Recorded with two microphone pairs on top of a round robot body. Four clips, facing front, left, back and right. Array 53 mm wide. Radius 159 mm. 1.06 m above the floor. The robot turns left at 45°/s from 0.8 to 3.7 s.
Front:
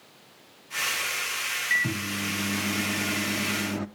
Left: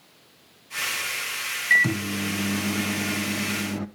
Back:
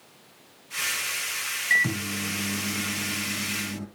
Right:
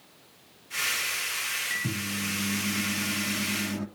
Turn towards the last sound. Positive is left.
turn(degrees=25)